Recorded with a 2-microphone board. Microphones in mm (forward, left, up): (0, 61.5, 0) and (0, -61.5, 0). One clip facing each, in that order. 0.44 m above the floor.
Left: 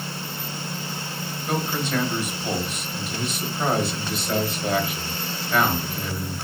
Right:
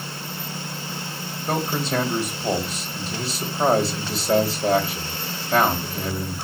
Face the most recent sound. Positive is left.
turn(degrees=-35)  # may be behind; listen again after turning